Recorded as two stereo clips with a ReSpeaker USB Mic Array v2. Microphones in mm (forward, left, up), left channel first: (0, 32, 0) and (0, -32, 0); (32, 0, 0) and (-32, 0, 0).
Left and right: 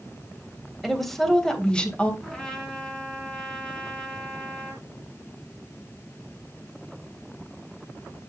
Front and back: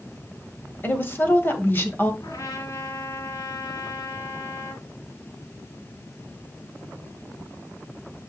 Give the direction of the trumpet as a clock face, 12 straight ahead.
12 o'clock.